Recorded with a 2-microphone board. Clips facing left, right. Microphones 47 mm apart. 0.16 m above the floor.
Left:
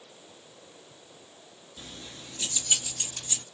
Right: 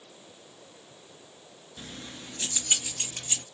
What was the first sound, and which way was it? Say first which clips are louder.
Keys jangling: right 2 dB; 35° right (ahead or behind).